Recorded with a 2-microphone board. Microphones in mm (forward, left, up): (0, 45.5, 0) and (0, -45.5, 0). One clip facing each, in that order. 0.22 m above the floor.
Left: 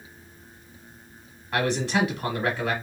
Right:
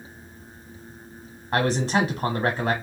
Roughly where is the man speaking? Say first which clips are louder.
Right 2 dB; right.